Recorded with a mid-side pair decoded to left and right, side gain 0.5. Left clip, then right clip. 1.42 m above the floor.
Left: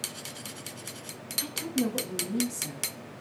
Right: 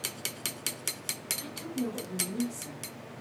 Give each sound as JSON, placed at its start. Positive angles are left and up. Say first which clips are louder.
{"t": 1.4, "sound": "a woman speaking", "louder": "left 5 dB", "azimuth_deg": 55, "distance_m": 0.8}